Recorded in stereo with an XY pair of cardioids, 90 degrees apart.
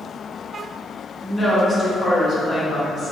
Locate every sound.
1.2 s a woman speaking: 20° left, 1.6 m; by 3.1 s 55° left, 1.5 m